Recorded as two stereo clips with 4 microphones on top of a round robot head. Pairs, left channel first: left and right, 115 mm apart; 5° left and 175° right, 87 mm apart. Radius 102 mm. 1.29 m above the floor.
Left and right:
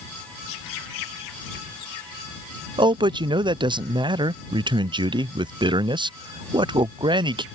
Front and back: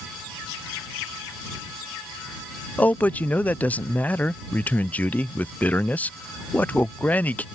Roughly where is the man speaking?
Ahead right.